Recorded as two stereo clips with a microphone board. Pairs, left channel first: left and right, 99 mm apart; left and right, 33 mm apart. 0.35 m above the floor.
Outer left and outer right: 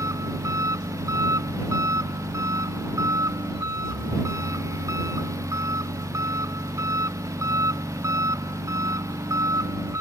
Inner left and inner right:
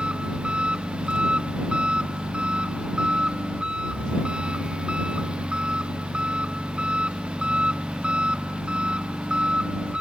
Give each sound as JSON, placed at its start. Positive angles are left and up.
{"t": 0.0, "sound": "an engine running", "side_deg": -30}